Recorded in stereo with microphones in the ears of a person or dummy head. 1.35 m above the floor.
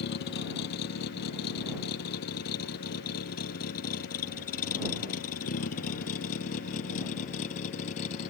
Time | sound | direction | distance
0.0 | a vehicle | 60° left (ahead or behind) | ?